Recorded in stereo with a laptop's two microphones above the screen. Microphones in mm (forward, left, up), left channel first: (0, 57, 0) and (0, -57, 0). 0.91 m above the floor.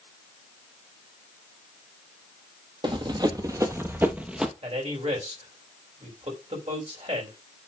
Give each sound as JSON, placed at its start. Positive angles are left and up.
{"t": 2.8, "sound": "running footsteps", "side_deg": -45, "distance_m": 1.2}
{"t": 4.6, "sound": "a man speaking", "side_deg": -65, "distance_m": 3.5}